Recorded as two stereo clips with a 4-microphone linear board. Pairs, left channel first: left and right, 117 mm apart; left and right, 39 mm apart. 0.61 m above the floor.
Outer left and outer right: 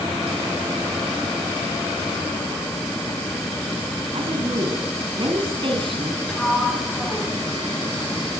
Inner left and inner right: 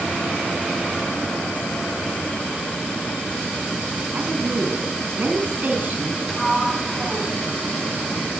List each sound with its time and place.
4.1 s a woman speaking: 50° right (ahead or behind), 5 m
6.3 s a sliding door: 10° left (ahead or behind), 5.5 m